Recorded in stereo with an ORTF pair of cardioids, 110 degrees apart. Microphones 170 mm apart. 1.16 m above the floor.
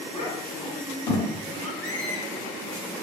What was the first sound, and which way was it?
A child speaking, 40° left.